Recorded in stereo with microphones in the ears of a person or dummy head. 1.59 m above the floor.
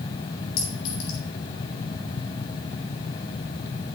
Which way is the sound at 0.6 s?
80° left.